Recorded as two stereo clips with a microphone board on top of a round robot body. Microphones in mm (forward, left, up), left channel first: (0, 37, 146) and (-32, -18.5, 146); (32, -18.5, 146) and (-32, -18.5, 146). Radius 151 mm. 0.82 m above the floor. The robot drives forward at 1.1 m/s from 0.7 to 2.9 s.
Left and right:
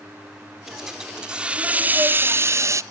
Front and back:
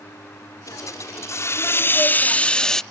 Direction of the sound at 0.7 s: 35° right.